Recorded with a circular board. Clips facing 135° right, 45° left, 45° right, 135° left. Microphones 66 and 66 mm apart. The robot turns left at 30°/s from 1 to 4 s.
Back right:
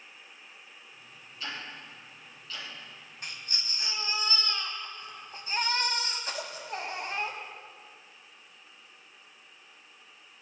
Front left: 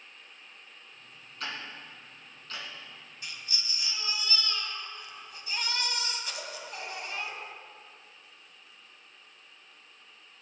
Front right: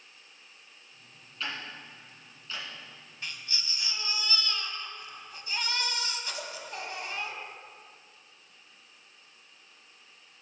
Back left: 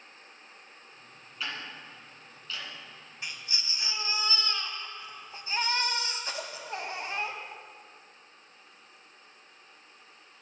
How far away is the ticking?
About 2.5 m.